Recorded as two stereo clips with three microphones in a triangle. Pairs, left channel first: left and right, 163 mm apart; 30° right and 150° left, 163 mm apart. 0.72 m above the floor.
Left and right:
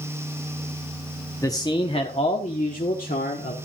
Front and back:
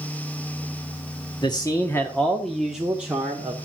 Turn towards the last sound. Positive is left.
turn(degrees=75)